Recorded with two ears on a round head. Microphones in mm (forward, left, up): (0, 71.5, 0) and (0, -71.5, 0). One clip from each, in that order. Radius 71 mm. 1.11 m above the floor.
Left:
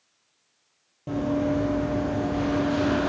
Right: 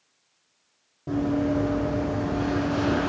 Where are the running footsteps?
35° left (ahead or behind), 1.6 m; by 3.1 s 55° left (ahead or behind), 1.8 m.